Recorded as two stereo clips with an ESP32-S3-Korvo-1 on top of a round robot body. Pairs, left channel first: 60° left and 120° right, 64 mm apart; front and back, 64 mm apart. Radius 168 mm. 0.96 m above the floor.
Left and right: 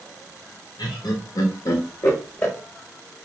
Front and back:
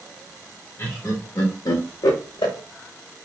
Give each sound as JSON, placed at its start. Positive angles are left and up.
{"t": 0.8, "sound": "laughter", "azimuth_deg": 65, "distance_m": 0.9}